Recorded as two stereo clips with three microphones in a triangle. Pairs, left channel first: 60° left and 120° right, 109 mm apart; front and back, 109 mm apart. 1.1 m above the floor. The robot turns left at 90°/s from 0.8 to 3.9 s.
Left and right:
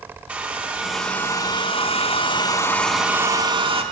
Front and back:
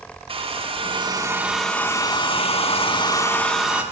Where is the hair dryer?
165° left, 0.9 m; by 3.8 s 110° right, 0.9 m.